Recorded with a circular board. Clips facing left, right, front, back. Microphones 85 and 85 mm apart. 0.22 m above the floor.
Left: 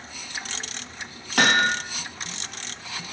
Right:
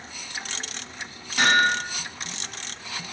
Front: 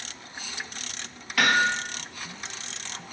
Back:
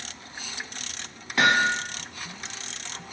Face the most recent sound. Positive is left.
turn(degrees=115)